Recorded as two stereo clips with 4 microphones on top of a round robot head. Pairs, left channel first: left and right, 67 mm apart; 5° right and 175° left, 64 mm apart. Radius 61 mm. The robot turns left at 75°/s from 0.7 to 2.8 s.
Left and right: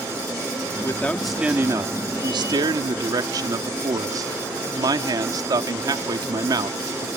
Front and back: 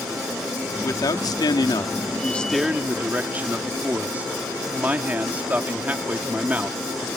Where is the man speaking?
30° left; by 7.1 s 115° right.